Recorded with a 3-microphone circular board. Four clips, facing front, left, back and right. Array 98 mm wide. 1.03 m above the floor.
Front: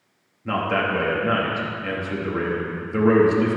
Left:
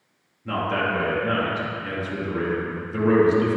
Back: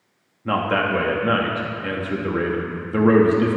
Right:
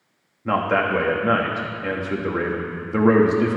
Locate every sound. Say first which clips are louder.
0.5 s a man speaking: right 4 dB, back 2 dB; 115° right, 1.4 m